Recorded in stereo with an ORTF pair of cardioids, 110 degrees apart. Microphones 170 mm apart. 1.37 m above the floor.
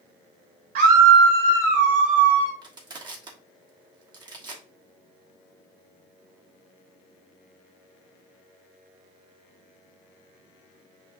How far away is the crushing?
About 1.2 m.